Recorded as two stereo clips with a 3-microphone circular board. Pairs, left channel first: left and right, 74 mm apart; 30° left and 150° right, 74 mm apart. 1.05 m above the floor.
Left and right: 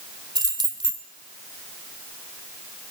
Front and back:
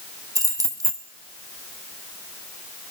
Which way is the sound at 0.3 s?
110° right.